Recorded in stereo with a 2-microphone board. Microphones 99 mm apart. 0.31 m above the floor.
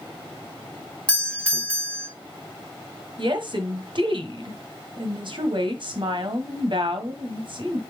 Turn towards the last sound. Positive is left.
turn(degrees=-55)  # may be behind; listen again after turning